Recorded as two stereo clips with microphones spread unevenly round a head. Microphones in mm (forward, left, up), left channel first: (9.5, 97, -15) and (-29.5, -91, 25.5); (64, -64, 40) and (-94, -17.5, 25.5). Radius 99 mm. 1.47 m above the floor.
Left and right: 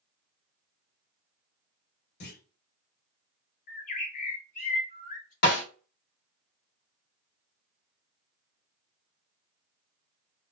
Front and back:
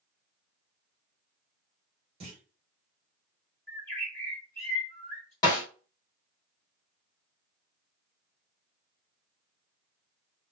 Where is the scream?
No scream in this recording.